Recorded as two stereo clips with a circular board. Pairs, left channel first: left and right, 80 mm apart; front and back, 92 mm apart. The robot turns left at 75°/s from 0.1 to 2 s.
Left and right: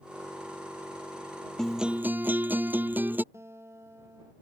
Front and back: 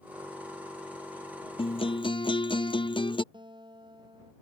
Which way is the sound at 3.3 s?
145° right.